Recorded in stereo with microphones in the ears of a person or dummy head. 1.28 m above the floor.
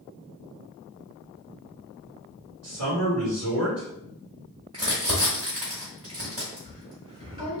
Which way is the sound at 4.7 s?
30° right (ahead or behind).